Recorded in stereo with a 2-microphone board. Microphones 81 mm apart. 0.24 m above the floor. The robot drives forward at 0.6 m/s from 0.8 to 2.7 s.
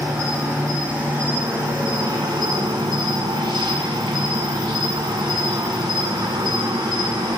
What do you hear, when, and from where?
0.0 s an insect: 25° right (ahead or behind), 1.2 m; by 7.4 s 70° right (ahead or behind), 0.6 m